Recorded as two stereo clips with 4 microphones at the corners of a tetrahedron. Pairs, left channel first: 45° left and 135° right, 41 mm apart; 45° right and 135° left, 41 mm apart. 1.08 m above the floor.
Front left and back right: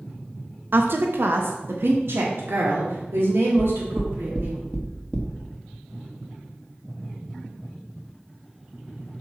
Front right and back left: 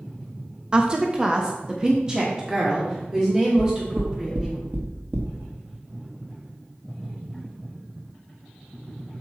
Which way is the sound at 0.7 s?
160° right.